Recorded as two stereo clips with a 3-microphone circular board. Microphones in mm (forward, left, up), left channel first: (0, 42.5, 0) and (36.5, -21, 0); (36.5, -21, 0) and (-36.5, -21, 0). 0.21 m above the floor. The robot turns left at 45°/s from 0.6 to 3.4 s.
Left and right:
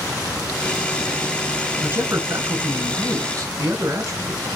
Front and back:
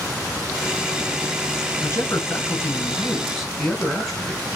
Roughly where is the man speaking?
Ahead.